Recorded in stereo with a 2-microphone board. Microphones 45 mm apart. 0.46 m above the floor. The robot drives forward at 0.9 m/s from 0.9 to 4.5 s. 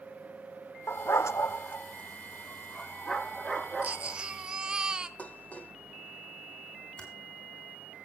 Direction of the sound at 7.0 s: 20° left (ahead or behind).